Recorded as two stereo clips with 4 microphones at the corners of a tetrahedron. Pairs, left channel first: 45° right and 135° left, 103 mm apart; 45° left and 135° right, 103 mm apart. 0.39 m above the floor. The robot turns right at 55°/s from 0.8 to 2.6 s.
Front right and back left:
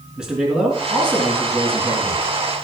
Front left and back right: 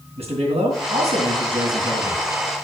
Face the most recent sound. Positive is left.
turn(degrees=-45)